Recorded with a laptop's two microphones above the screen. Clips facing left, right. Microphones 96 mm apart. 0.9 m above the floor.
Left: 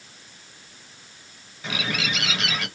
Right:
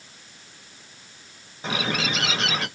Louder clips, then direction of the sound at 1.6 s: Right 2 dB; 30° right (ahead or behind).